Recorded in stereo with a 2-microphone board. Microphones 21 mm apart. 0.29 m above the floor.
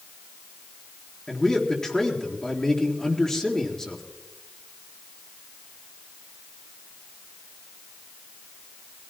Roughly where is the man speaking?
Left.